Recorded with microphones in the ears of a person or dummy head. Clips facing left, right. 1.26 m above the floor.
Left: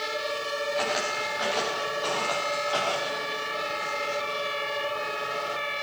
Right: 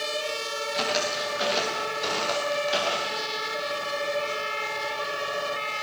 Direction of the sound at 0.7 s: 40° right (ahead or behind).